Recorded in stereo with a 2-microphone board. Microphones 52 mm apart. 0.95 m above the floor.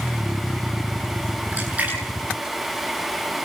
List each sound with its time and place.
1.5 s a splash: 30° right (ahead or behind), 8 m